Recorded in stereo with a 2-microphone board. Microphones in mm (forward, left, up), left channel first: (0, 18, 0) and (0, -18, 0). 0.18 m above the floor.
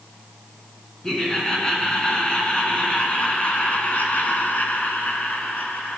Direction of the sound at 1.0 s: 15° left (ahead or behind).